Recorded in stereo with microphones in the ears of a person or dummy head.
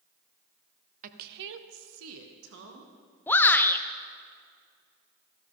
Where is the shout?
10° left (ahead or behind), 0.7 m.